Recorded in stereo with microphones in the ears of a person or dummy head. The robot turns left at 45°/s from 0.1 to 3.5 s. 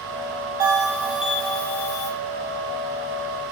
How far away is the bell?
About 1.0 m.